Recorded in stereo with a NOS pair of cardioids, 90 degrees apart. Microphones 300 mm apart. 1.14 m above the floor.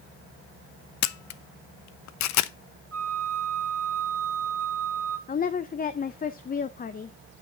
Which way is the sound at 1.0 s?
70° left.